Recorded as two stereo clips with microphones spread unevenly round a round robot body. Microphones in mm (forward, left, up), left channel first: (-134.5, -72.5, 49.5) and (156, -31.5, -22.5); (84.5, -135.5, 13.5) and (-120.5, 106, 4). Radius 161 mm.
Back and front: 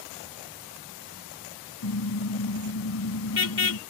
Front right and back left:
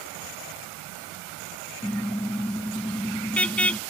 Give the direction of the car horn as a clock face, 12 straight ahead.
5 o'clock.